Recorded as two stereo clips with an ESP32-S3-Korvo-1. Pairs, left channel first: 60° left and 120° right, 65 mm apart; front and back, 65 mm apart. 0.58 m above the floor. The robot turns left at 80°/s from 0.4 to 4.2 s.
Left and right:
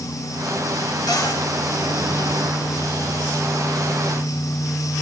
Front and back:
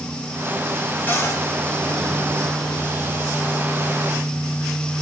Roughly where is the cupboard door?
Ahead left.